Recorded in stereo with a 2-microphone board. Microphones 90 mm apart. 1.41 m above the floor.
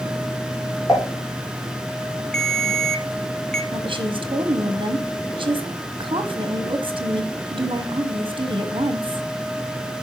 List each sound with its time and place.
0.9 s dishes clattering: 40° left (ahead or behind), 3 m
2.3 s a ringtone: 5° left (ahead or behind), 0.7 m
3.7 s a woman speaking: 65° right (ahead or behind), 1.0 m